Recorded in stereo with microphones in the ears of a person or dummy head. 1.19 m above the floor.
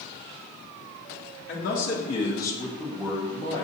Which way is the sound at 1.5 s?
50° left (ahead or behind).